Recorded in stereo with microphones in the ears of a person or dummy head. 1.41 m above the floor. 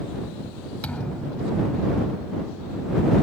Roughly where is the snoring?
I don't hear snoring.